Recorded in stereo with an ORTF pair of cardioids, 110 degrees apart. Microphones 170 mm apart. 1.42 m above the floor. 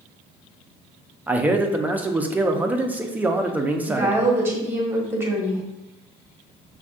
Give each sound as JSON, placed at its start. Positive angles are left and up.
{"t": 1.3, "sound": "a man speaking", "azimuth_deg": -10, "distance_m": 0.6}
{"t": 3.9, "sound": "a woman speaking", "azimuth_deg": -15, "distance_m": 1.3}